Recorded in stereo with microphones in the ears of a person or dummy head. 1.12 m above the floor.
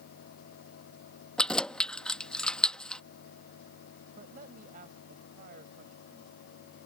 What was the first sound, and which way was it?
Keys jangling, 5° left (ahead or behind).